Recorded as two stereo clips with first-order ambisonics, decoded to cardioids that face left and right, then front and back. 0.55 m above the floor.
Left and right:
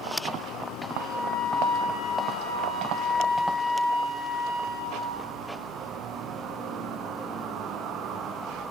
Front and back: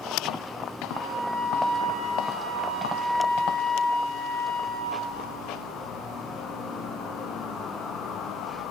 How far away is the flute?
About 1.0 m.